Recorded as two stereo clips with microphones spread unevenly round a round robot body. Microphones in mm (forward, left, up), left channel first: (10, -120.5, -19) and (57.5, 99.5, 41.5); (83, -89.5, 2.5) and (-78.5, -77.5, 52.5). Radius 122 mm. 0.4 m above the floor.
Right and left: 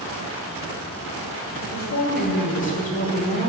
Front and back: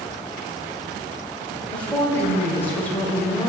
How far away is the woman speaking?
About 3 m.